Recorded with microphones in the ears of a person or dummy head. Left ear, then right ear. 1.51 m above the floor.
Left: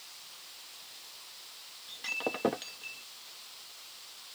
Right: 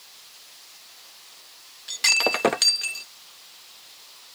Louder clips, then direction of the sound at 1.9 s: Right 14 dB; 35° right (ahead or behind).